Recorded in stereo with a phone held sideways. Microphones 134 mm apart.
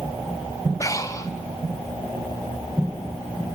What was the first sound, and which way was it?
Breathing, 25° left (ahead or behind).